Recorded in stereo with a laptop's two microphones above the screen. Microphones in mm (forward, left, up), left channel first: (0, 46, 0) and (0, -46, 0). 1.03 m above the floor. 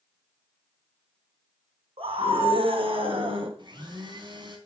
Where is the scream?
85° right, 5.5 m; by 3.5 s 70° right (ahead or behind), 5.5 m.